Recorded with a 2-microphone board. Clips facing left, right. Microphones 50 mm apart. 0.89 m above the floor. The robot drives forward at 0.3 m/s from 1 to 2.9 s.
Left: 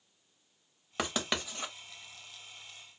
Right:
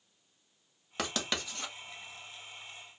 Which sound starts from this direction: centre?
Writing, at 1.0 s.